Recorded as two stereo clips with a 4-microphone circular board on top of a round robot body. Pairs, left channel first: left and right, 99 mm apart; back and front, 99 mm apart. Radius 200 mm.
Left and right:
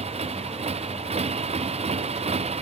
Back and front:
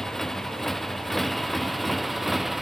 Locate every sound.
0.0 s a motorcycle: 95° right; by 2.6 s 90° right